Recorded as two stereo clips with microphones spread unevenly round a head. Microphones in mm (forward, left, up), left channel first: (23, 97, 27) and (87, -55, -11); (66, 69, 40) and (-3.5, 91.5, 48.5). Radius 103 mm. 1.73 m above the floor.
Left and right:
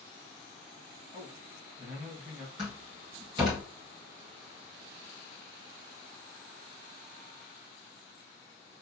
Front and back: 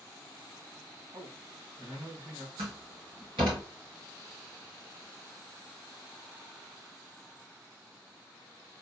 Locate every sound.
1.1 s a man speaking: 130° right, 1.9 m
2.6 s a door slam: 140° right, 1.8 m